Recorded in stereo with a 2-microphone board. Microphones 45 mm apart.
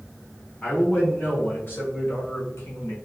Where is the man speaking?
35° left (ahead or behind), 1.9 m; by 3.0 s 65° left (ahead or behind), 1.3 m.